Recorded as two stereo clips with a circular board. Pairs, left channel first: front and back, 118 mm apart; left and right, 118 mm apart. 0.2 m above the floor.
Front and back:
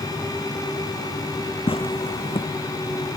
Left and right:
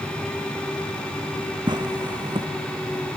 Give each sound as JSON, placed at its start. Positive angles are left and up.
{"t": 1.7, "sound": "tearing paper", "azimuth_deg": -40}